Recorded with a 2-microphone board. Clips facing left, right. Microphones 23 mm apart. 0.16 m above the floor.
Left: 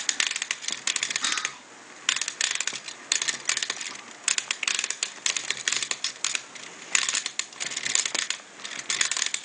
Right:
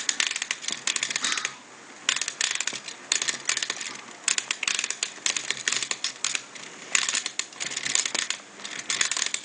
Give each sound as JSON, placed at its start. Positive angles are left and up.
{"t": 1.2, "sound": "whispering", "side_deg": 0, "distance_m": 1.7}